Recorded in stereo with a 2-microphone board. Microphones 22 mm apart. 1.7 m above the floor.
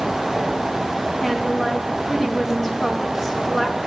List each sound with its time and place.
1.2 s a woman speaking: 10° left (ahead or behind), 5 m